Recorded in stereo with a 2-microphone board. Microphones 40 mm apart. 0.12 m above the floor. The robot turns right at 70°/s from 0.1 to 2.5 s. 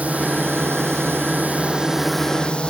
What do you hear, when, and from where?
0.0 s a drone: 145° right; by 2.7 s 25° left